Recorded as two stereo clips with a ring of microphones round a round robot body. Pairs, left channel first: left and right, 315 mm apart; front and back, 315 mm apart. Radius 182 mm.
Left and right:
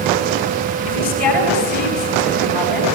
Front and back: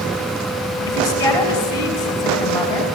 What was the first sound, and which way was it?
A woman speaking, 80° left.